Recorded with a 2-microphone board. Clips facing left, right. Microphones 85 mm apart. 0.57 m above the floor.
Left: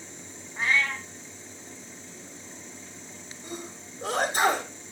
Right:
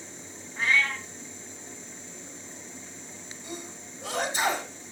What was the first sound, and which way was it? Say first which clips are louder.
A cat meowing: even; 25° left (ahead or behind).